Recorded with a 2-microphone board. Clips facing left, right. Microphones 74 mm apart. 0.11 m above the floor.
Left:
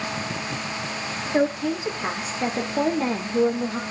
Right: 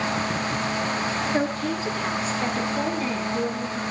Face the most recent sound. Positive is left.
turn(degrees=50)  # may be behind; listen again after turning